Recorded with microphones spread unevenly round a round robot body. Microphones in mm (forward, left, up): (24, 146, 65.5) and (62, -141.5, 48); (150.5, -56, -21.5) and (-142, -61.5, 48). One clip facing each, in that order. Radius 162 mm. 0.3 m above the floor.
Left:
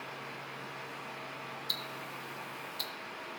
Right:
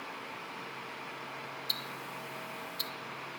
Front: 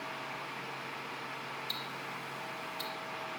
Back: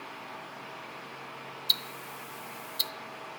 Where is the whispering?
No whispering in this recording.